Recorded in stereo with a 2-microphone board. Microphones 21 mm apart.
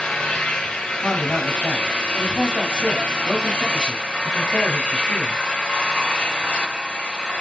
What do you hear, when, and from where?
0.0 s an engine running: 70° left (ahead or behind), 5 m
1.0 s a man speaking: 50° left (ahead or behind), 2.5 m